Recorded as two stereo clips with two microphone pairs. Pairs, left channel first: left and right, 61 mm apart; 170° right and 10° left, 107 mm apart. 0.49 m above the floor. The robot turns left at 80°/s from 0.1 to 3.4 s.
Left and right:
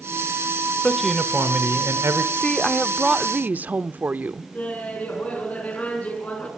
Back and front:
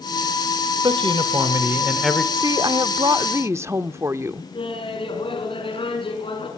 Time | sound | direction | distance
0.8 | a man speaking | 20° left | 1.8 m
2.3 | a woman speaking | 40° left | 0.9 m
4.5 | laughter | 155° left | 7 m